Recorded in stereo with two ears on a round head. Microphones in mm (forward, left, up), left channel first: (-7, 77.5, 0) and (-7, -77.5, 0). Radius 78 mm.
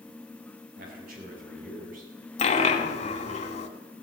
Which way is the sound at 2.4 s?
40° left (ahead or behind).